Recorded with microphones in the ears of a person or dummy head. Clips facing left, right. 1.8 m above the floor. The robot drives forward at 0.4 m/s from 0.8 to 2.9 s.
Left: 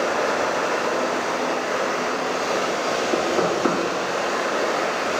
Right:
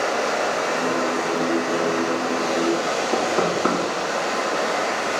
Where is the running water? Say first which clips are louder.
Even; 25° right (ahead or behind), 3 m; by 5.2 s 20° right (ahead or behind), 3.5 m.